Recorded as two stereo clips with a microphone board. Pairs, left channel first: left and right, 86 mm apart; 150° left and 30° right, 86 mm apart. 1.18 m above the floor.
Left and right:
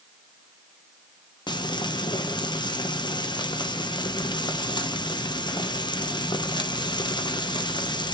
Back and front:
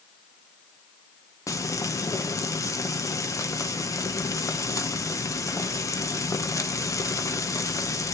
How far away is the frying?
About 1.0 m.